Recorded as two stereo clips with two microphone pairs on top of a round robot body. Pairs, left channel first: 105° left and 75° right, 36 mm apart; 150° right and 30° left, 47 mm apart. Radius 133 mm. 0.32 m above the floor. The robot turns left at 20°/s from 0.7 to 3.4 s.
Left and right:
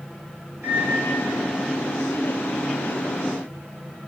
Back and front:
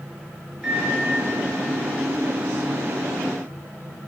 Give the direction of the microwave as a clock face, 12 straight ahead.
2 o'clock.